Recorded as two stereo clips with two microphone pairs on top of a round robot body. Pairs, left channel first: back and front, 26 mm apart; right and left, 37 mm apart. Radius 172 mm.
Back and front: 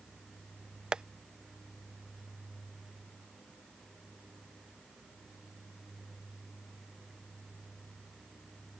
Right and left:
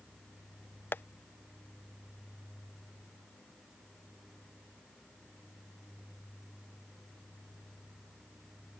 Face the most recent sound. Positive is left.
turn(degrees=-60)